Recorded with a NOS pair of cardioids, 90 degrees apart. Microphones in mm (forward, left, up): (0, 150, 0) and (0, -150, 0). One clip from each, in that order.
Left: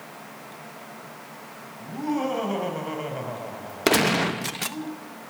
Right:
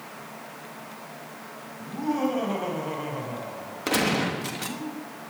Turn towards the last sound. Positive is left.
turn(degrees=60)